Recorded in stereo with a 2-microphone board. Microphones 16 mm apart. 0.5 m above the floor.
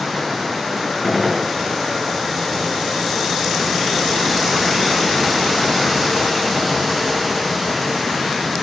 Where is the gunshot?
10° right (ahead or behind), 7 m.